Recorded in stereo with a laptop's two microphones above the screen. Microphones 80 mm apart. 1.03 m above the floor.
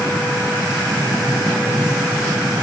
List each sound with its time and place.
Only background noise.